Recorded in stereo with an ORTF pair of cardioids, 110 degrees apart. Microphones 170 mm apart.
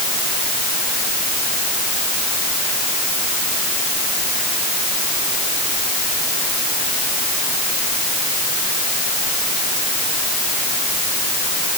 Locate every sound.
Only background noise.